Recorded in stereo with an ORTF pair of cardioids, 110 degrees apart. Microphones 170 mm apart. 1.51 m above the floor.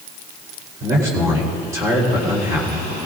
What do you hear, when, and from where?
0.8 s a man speaking: 20° right, 3.5 m